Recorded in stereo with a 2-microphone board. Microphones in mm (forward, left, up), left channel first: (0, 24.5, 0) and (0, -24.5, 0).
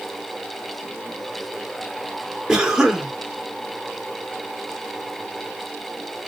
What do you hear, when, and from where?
2.5 s a cough: 10° right (ahead or behind), 1.5 m